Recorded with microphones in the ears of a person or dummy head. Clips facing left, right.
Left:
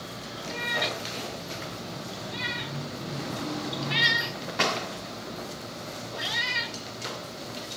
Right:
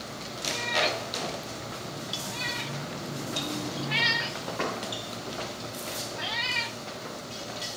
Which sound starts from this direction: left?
A cat meowing, at 0.5 s.